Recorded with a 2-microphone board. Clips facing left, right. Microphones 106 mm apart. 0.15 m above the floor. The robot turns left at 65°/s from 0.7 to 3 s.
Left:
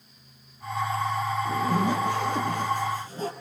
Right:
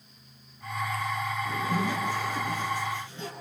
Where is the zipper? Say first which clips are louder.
Left 4 dB; 145° left, 3.5 m; by 3.3 s 40° left, 3.5 m.